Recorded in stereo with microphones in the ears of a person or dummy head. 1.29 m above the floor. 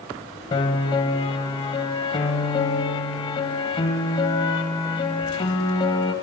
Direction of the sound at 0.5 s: 30° left (ahead or behind).